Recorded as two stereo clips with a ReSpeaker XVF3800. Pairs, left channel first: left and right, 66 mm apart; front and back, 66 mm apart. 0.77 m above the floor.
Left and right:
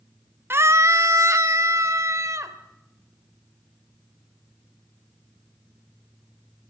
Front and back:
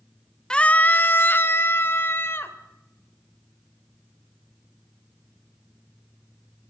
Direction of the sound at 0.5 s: 70° right.